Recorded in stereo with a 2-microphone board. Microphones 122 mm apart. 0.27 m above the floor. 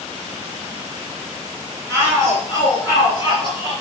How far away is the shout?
About 4.5 m.